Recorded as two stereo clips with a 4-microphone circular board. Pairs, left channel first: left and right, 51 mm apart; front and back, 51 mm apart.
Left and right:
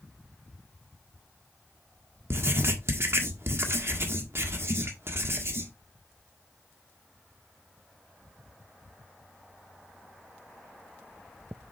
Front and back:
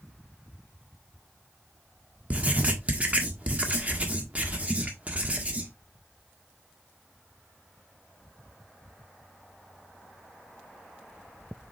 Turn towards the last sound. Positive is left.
turn(degrees=-120)